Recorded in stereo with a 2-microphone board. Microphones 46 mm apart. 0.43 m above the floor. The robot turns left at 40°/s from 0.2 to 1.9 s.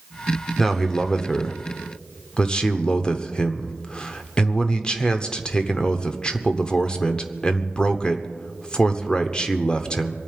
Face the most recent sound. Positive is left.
turn(degrees=20)  # may be behind; listen again after turning